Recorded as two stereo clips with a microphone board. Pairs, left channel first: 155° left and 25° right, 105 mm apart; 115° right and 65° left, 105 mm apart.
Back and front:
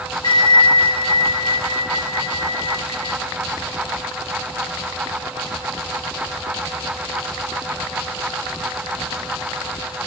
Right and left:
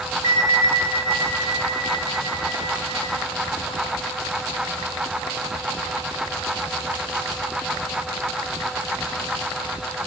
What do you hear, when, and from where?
0.2 s a bell: 120° left, 6 m